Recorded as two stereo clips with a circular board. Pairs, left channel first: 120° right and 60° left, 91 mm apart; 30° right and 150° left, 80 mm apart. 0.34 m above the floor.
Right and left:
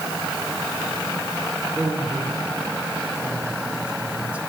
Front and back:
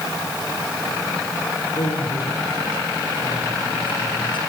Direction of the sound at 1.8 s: 25° right.